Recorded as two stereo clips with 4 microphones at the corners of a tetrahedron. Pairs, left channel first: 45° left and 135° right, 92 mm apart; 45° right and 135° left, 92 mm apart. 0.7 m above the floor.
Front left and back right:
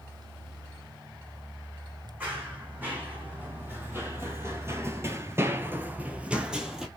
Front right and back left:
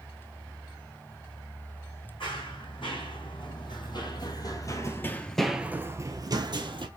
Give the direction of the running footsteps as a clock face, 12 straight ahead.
2 o'clock.